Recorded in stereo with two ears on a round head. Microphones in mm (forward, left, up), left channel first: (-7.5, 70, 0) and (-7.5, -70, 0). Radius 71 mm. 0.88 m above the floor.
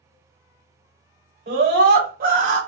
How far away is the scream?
About 2.5 m.